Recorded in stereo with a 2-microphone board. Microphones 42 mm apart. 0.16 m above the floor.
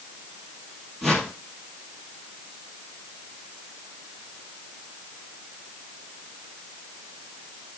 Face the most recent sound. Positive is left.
turn(degrees=5)  # may be behind; listen again after turning